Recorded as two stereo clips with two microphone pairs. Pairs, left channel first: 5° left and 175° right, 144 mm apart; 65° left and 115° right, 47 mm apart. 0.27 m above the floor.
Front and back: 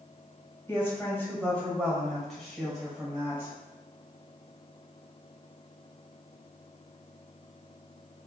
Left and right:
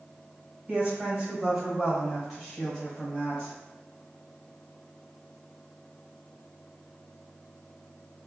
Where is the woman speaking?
65° right, 1.6 m; by 3.5 s 120° left, 1.4 m.